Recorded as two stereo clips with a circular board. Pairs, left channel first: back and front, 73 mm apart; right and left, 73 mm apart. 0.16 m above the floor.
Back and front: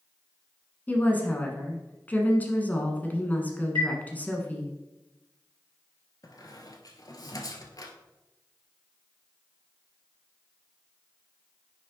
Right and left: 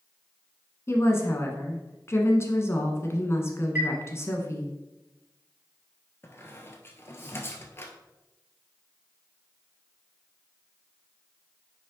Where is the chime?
165° left, 3 m.